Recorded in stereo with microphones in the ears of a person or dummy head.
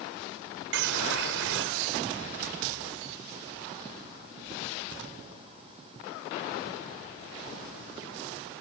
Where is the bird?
60° right (ahead or behind).